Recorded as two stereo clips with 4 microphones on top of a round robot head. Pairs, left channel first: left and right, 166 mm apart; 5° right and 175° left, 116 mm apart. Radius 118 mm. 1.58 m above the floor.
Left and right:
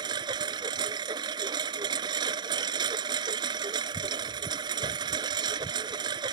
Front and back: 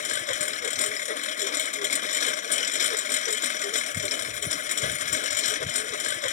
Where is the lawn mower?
20° right.